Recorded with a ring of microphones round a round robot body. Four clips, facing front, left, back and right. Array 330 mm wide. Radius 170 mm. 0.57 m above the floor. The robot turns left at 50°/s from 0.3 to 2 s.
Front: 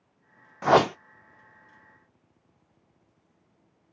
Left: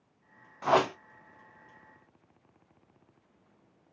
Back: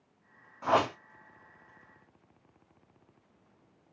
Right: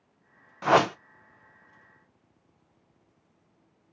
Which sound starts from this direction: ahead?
A whoosh, at 0.6 s.